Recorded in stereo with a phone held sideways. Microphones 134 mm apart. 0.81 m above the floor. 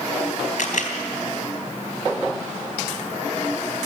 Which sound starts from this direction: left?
A camera shutter, at 0.6 s.